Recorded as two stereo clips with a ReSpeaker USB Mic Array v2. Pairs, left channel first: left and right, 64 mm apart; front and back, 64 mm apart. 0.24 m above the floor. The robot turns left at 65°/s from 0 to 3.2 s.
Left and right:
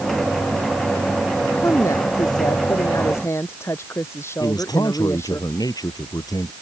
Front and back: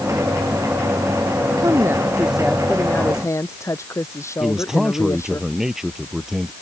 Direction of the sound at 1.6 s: 150° left.